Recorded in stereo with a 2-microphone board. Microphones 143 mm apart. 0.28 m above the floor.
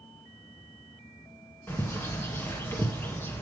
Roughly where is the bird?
Centre.